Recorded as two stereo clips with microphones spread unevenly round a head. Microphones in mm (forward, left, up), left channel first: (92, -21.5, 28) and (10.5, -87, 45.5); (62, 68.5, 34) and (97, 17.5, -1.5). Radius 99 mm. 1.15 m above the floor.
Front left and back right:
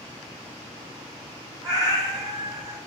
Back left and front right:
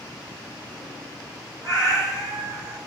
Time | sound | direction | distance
1.6 | a cat meowing | 95° right | 2 m